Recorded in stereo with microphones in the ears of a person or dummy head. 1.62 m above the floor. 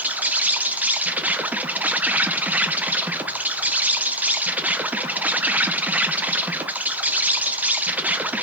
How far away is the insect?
About 0.7 m.